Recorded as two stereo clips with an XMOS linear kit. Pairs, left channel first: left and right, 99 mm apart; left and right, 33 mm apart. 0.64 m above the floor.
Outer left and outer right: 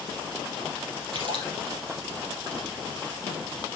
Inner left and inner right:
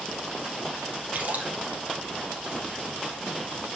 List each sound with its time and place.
1.1 s a splash: 60° right (ahead or behind), 4 m